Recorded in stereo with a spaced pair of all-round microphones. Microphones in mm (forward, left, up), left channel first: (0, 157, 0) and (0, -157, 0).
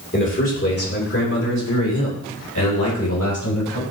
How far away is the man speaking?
About 2 m.